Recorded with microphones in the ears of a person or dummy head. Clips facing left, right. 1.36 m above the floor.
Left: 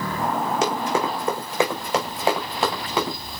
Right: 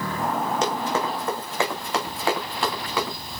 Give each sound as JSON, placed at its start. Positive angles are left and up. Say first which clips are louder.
{"t": 0.6, "sound": "running footsteps", "louder": "left 2 dB", "side_deg": 15, "distance_m": 5.0}